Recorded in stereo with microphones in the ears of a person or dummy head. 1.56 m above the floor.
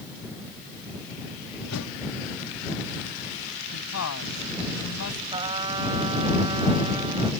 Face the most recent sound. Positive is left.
turn(degrees=-25)  # may be behind; listen again after turning